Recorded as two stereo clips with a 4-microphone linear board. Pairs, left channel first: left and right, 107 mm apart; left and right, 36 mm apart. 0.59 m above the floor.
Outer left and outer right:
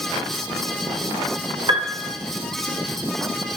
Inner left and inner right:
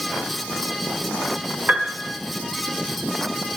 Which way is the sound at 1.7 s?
60° right (ahead or behind).